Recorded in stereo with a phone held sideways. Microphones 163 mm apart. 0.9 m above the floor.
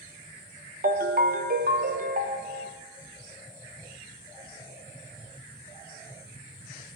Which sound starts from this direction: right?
A ringtone, at 0.8 s.